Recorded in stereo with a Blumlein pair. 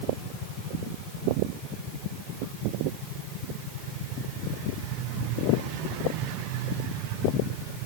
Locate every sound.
Only background noise.